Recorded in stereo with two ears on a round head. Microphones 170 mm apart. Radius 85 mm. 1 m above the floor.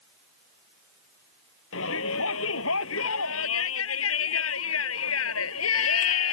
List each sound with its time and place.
1.7 s a shout: 85° left